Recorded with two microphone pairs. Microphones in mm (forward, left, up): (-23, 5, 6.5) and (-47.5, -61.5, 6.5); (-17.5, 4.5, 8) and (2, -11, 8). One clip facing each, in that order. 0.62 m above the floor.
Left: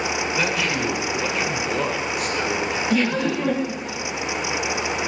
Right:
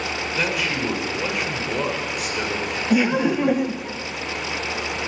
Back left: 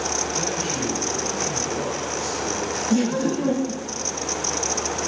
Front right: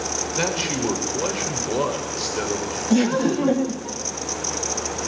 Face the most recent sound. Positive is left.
turn(degrees=-65)